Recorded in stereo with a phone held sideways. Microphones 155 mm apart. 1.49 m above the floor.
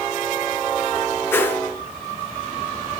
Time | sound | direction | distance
1.3 | a whoosh | 15° left (ahead or behind) | 0.9 m